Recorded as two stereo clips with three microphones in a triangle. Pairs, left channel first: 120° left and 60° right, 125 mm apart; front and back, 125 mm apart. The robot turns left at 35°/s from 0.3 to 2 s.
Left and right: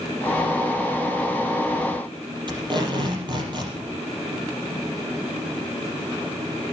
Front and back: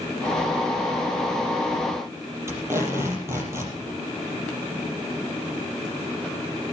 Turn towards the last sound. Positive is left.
turn(degrees=-110)